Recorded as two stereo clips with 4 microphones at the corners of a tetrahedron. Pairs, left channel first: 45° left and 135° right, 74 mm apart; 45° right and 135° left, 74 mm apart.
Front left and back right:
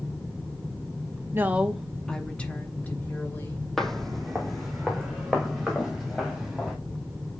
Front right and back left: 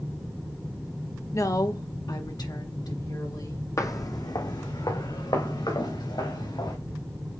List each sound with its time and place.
1.3 s a woman speaking: 80° right, 0.8 m; by 3.6 s 15° right, 2.5 m
3.8 s footsteps: 40° right, 1.0 m; by 6.8 s 45° right, 4.5 m